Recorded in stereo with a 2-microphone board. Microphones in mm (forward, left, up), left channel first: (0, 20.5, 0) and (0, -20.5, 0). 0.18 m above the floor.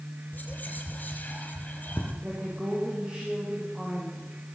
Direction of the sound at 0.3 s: 40° left (ahead or behind).